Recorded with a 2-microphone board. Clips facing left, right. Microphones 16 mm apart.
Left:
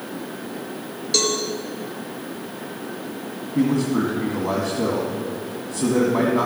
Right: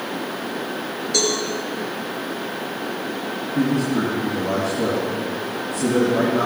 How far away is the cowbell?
About 2.5 m.